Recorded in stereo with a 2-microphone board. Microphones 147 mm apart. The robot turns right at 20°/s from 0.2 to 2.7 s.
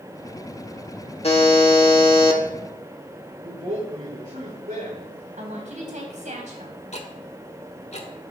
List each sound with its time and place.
1.2 s a buzzer: 45° left (ahead or behind), 1.4 m; by 2.4 s 40° left (ahead or behind), 1.4 m
3.4 s a woman speaking: 65° right (ahead or behind), 5.5 m
5.3 s a woman speaking: 55° right (ahead or behind), 3.5 m
6.9 s ticking: 50° left (ahead or behind), 1.3 m